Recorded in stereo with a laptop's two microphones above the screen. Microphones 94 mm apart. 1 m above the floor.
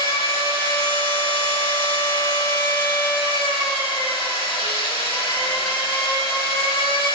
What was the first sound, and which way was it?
A machine running, 70° left (ahead or behind).